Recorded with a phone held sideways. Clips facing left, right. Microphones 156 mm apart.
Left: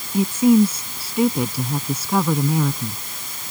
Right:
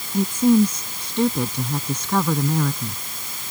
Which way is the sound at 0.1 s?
5° left (ahead or behind).